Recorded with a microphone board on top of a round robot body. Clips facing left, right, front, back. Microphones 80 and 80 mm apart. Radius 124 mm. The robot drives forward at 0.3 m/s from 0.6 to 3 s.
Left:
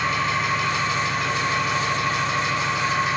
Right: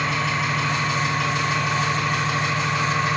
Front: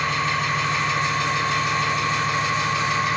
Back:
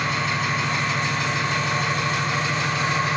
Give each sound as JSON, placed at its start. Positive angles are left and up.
{"t": 0.0, "sound": "an engine running", "azimuth_deg": -100, "distance_m": 1.4}